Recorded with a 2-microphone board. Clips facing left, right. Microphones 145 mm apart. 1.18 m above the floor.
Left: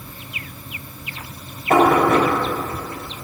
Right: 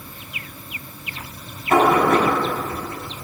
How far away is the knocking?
About 5 m.